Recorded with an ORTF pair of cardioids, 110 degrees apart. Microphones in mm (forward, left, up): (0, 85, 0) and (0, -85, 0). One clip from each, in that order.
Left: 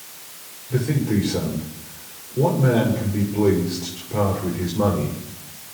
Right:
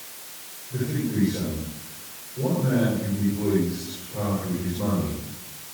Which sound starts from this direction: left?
A man speaking, at 0.7 s.